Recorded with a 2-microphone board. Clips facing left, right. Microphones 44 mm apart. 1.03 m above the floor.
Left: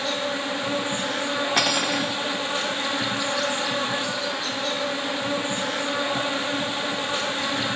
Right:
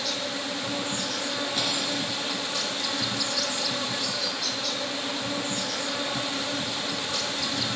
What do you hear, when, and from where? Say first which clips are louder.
0.0 s an insect: left 5 dB; 35° left (ahead or behind), 1.3 m
1.6 s cutlery clinking: left 6 dB; 80° left, 1.9 m